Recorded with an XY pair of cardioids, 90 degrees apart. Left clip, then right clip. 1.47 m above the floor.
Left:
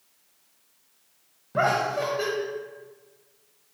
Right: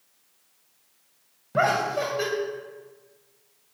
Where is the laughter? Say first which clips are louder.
Right 1 dB; 15° right, 0.8 m.